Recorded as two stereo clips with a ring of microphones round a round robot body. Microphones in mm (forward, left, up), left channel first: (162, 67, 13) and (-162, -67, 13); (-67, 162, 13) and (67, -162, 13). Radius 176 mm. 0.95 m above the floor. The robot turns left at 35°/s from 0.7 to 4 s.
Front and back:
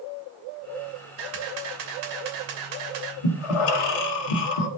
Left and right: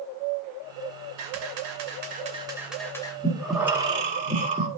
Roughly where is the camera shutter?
Right.